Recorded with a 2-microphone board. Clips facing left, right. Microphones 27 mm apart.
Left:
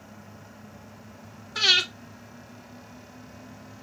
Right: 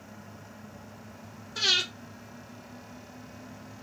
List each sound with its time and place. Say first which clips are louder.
1.6 s breathing: left 5 dB; 60° left (ahead or behind), 2.5 m